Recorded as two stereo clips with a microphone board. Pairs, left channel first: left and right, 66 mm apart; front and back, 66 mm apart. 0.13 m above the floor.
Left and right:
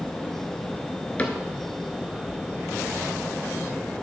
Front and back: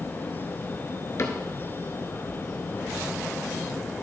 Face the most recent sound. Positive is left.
turn(degrees=25)